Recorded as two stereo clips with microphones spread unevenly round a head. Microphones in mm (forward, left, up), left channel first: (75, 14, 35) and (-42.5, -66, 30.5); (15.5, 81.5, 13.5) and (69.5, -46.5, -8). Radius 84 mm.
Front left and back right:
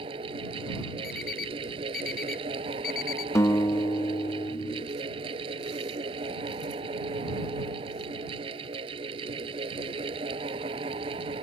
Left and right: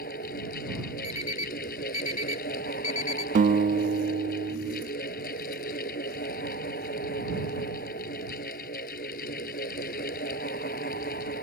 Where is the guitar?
35° right.